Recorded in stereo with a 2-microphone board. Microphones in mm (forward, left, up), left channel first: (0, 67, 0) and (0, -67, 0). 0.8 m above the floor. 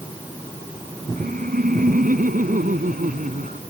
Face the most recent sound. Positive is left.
turn(degrees=-85)